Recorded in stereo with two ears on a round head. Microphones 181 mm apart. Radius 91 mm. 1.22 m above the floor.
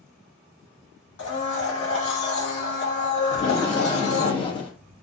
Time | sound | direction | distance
1.2 | a blender | 60° left (ahead or behind) | 1.7 m
3.3 | tape being pulled | 25° left (ahead or behind) | 0.6 m